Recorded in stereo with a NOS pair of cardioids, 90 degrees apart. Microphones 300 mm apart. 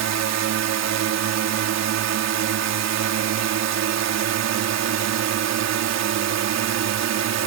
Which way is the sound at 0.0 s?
60° right.